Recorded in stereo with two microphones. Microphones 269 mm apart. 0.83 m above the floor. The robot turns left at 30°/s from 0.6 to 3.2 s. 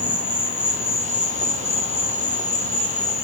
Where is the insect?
115° left, 0.9 m; by 3.2 s 35° left, 0.9 m.